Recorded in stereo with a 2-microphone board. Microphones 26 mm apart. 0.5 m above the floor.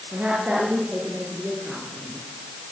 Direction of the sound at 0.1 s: 75° right (ahead or behind).